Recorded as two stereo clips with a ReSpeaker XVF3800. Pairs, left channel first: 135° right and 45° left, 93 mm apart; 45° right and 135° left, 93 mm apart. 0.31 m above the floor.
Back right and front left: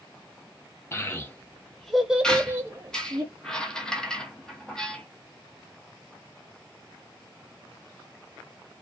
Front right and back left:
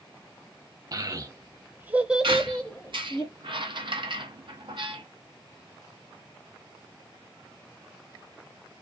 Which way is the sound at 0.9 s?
170° left.